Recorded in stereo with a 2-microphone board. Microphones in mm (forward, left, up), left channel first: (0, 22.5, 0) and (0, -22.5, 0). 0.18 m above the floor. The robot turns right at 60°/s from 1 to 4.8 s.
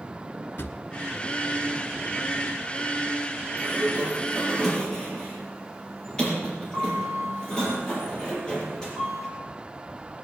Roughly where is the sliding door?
Ahead right.